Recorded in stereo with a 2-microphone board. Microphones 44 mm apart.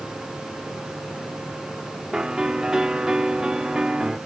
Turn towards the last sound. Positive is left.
turn(degrees=-15)  # may be behind; listen again after turning